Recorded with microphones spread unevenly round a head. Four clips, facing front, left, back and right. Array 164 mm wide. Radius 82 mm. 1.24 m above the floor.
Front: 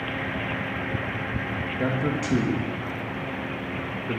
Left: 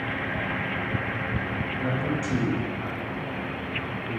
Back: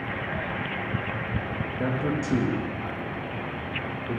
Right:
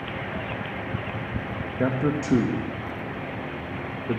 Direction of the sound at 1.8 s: 80° right.